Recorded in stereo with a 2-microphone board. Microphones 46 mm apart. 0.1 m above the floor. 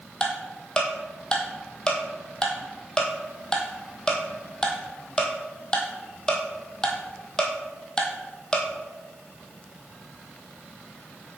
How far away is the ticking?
About 1.0 m.